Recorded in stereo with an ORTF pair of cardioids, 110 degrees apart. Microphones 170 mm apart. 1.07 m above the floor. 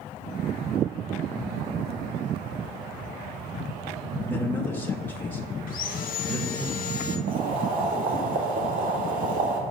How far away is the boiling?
About 1.8 m.